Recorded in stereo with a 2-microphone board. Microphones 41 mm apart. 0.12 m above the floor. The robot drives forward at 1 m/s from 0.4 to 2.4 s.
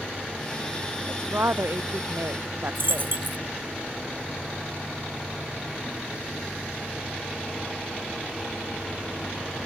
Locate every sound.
1.1 s a woman speaking: 70° right (ahead or behind); by 3.2 s 65° right (ahead or behind)
2.8 s a dropped coin: 50° right (ahead or behind)